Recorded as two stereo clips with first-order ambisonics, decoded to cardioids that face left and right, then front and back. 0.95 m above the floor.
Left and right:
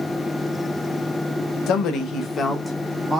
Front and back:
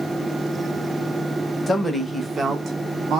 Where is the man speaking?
75° left, 0.7 m; by 3.2 s 160° right, 0.6 m.